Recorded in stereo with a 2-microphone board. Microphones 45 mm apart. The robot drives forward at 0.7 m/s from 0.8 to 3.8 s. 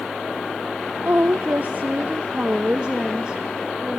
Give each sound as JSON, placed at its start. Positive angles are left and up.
{"t": 1.1, "sound": "a woman speaking", "side_deg": -60, "distance_m": 1.0}